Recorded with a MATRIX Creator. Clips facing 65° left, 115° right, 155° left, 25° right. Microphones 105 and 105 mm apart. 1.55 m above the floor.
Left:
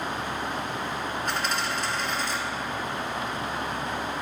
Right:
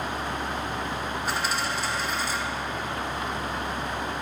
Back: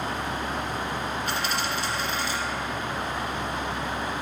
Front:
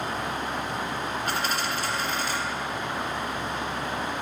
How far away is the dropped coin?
About 2 m.